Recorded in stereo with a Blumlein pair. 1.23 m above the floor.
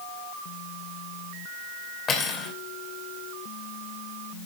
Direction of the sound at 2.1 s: 20° left.